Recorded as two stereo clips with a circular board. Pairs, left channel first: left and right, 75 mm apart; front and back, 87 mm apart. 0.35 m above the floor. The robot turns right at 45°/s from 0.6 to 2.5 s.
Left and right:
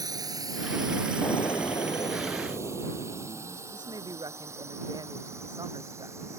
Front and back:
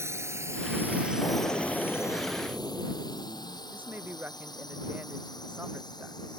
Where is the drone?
120° right; by 6.4 s 40° right.